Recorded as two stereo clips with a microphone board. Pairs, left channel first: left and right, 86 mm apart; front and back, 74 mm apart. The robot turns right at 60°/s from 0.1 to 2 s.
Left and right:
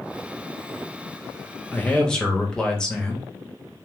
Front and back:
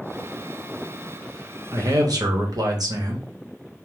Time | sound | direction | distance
1.7 | a man speaking | 150° left | 1.0 m